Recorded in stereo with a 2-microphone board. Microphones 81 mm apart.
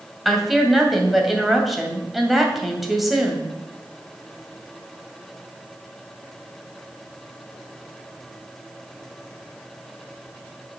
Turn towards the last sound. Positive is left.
turn(degrees=0)  # may be behind; listen again after turning